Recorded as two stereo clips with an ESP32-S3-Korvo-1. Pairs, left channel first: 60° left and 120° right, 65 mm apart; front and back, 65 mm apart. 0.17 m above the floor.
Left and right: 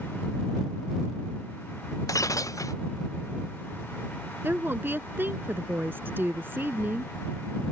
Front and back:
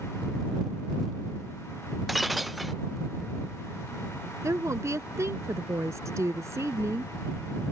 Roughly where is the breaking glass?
Left.